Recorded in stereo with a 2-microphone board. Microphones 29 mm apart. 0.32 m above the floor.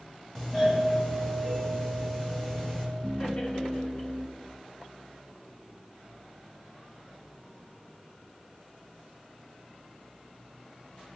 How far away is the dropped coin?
I don't hear a dropped coin.